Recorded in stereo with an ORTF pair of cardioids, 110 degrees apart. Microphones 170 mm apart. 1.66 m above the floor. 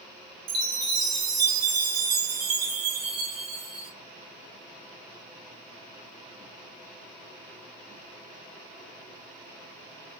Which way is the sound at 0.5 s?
65° right.